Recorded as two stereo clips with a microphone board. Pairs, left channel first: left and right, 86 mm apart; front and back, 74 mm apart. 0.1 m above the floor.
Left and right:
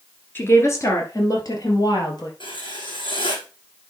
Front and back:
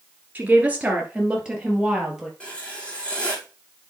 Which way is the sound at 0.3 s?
130° left.